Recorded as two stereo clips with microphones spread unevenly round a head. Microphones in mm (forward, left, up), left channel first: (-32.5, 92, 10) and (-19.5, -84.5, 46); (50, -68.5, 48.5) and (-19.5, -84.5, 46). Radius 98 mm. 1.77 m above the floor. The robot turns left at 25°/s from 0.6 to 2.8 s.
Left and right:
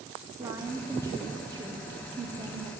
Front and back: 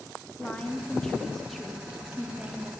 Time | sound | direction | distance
0.4 | a woman speaking | 50° right | 0.6 m